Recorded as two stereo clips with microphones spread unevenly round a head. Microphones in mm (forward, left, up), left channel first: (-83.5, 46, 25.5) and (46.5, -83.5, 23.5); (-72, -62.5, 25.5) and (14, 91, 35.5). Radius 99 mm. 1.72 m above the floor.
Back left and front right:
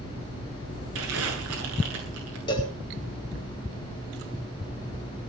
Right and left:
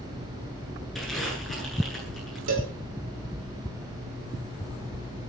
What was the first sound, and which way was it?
Crumpling, 30° right.